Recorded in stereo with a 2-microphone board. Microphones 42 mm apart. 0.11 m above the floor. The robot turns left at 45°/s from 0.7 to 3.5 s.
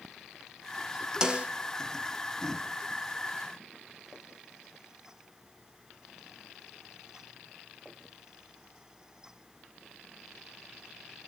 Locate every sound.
1.2 s a snare drum: 15° right (ahead or behind), 1.0 m; by 1.5 s 30° right (ahead or behind), 1.0 m